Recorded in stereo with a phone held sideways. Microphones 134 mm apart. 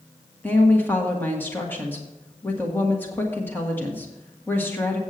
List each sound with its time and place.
0.4 s a woman speaking: 15° left (ahead or behind), 1.5 m